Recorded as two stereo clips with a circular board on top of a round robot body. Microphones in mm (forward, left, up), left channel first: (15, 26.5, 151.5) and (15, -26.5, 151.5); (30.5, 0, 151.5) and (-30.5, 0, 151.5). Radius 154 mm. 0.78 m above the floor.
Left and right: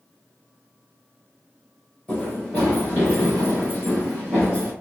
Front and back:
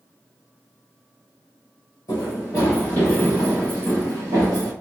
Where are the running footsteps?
30° left, 1.2 m; by 4.7 s 170° left, 1.1 m.